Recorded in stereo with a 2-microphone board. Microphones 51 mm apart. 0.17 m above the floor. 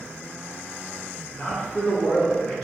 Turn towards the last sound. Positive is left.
turn(degrees=20)  # may be behind; listen again after turning